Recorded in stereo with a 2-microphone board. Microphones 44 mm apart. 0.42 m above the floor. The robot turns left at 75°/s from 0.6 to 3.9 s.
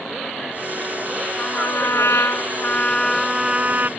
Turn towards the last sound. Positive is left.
turn(degrees=-50)